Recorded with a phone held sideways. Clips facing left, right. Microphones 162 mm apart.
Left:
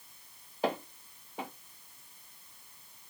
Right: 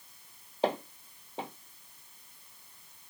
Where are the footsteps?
25° right (ahead or behind), 1.6 m.